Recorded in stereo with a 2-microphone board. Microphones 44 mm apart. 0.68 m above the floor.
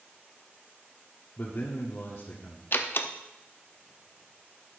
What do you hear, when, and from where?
1.4 s a man speaking: 60° left (ahead or behind), 1.4 m
2.7 s a door slam: 55° left (ahead or behind), 0.7 m